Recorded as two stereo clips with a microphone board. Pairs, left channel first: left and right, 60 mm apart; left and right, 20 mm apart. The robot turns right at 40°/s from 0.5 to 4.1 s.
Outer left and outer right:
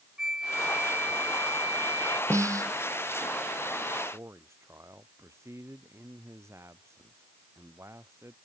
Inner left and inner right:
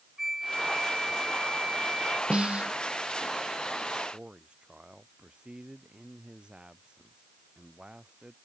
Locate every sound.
0.2 s a flute: 170° right; by 2.2 s 105° right
2.3 s a snare drum: 50° right (ahead or behind); by 2.7 s 65° right (ahead or behind)
4.1 s a man speaking: 55° right (ahead or behind)